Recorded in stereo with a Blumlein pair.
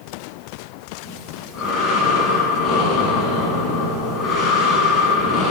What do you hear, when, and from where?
1.0 s breathing: 25° left, 5 m